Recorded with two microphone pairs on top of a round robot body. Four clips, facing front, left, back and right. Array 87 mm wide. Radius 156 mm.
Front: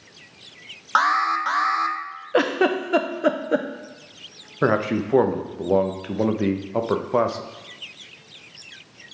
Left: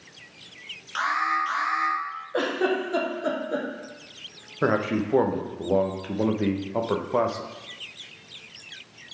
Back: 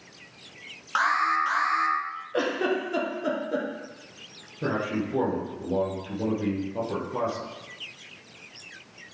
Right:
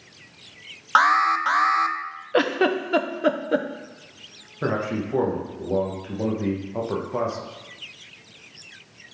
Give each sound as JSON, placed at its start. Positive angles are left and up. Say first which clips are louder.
{"t": 0.9, "sound": "an alarm", "louder": "right 7 dB, front 4 dB", "azimuth_deg": -55, "distance_m": 0.6}
{"t": 2.3, "sound": "a giggle", "louder": "right 4 dB, front 6 dB", "azimuth_deg": -45, "distance_m": 0.8}
{"t": 4.6, "sound": "a man speaking", "louder": "left 2 dB, front 7 dB", "azimuth_deg": 15, "distance_m": 0.9}